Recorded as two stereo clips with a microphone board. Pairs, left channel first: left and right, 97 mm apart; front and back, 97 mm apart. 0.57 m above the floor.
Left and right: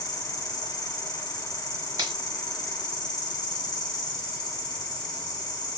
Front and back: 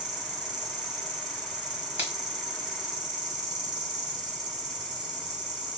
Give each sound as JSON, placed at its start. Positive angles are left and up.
{"t": 0.0, "sound": "an insect", "azimuth_deg": 135, "distance_m": 1.1}
{"t": 2.0, "sound": "a finger snap", "azimuth_deg": -115, "distance_m": 1.5}